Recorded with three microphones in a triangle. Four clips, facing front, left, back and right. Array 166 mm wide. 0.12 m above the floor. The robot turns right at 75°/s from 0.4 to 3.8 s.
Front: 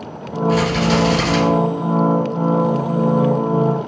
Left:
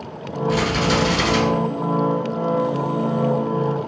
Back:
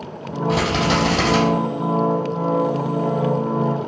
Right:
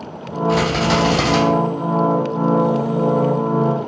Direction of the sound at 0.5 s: 155° right.